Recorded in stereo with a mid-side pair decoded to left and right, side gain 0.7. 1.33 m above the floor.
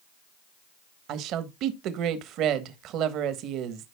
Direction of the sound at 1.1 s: 55° right.